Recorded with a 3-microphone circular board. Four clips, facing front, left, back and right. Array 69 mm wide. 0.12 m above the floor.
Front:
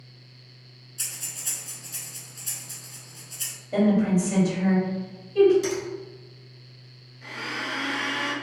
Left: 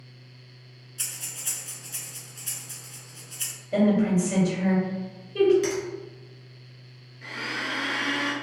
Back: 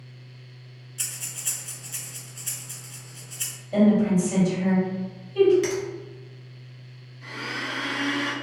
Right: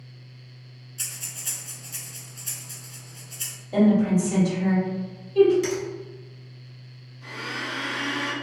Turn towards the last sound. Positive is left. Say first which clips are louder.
# left 1 dB, even
turn(degrees=85)